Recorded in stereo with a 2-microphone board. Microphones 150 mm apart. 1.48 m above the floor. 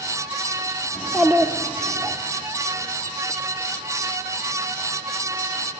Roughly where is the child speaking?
Centre.